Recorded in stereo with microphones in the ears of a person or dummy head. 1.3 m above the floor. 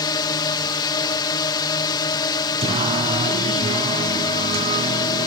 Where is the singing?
30° right (ahead or behind).